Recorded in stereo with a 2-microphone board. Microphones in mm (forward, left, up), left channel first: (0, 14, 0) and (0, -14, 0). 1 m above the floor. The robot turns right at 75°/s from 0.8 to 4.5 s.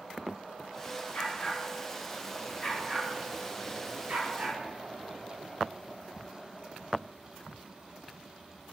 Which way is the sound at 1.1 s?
60° left (ahead or behind).